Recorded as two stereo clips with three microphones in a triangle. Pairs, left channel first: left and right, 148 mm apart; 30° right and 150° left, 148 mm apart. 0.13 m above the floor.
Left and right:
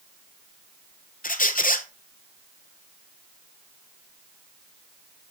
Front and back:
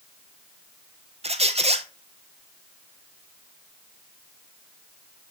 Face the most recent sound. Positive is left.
turn(degrees=105)